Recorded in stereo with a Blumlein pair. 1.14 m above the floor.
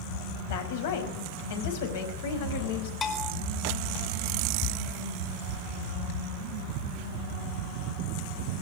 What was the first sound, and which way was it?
A woman speaking, 55° left.